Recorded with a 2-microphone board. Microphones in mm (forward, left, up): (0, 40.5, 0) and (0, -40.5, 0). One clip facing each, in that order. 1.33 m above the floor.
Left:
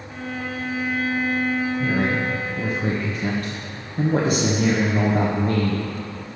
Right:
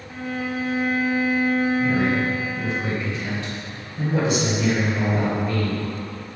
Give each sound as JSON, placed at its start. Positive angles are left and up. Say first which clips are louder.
{"t": 0.1, "sound": "a violin", "louder": "right 3 dB", "side_deg": -5, "distance_m": 0.6}
{"t": 1.8, "sound": "a man speaking", "louder": "right 1 dB", "side_deg": 45, "distance_m": 1.2}